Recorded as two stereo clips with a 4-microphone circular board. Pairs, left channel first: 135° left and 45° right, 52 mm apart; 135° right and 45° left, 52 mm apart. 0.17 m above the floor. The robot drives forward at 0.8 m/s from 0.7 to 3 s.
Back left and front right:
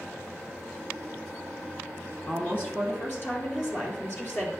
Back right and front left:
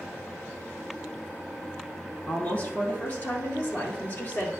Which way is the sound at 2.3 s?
170° left.